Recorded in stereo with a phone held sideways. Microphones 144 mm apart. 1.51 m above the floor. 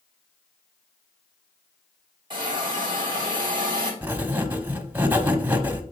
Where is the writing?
15° right (ahead or behind), 0.9 m.